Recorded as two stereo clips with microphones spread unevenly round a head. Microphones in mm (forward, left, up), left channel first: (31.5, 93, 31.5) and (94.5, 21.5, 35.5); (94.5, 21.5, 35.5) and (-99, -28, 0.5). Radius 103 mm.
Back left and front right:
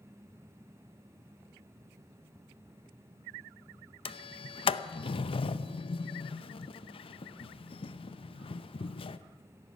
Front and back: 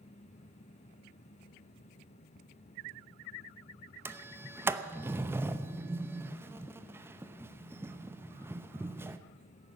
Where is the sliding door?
110° left, 0.7 m.